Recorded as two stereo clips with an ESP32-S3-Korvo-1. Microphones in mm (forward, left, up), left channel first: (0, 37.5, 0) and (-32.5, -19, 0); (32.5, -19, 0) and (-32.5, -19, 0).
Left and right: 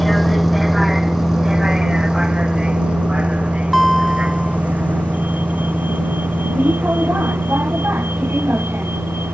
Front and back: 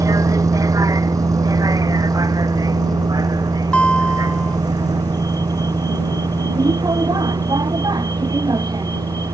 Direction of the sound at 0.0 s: 150° left.